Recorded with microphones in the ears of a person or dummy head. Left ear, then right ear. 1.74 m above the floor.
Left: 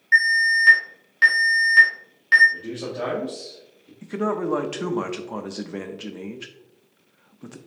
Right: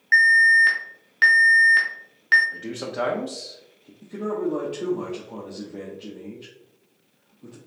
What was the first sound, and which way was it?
An alarm, 25° right (ahead or behind).